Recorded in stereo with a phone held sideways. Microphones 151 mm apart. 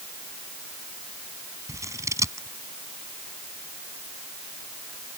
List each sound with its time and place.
1.7 s scissors: 20° right (ahead or behind)